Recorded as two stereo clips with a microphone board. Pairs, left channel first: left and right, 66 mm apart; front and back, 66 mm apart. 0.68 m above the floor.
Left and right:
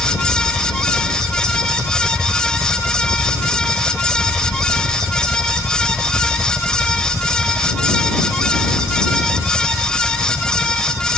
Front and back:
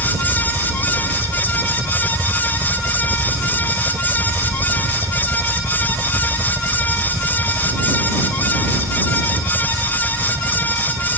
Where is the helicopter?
175° right; by 11.2 s straight behind.